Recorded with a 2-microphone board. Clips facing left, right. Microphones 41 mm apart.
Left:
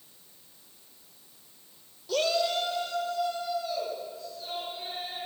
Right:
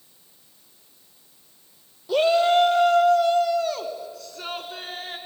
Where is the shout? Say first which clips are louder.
Right 9 dB; 15° right (ahead or behind), 0.8 m; by 5.2 s 80° right, 4 m.